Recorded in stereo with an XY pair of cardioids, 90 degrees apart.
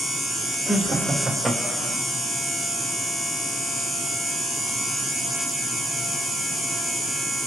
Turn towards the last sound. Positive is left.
turn(degrees=10)